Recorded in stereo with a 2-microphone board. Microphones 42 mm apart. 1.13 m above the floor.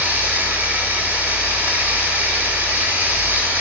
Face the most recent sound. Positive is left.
turn(degrees=-40)  # may be behind; listen again after turning